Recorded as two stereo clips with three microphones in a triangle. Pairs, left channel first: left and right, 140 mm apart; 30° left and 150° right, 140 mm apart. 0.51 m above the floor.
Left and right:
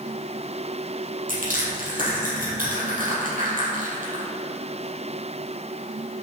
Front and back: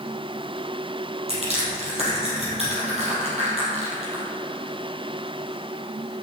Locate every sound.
1.3 s crushing: 110° right, 4 m